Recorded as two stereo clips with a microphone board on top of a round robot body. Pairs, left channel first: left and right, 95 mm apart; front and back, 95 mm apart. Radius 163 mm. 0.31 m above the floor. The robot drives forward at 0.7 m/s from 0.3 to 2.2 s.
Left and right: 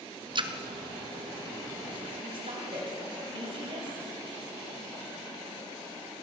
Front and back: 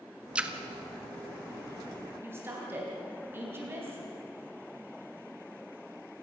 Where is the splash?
105° right, 1.5 m; by 0.5 s 110° right, 1.6 m.